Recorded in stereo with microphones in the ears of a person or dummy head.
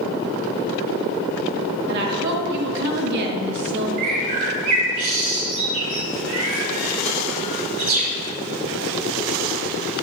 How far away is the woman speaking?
About 1.1 m.